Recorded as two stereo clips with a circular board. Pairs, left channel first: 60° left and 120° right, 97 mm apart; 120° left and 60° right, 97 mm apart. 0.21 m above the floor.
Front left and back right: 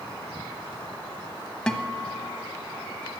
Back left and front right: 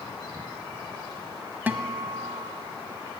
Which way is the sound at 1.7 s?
10° right.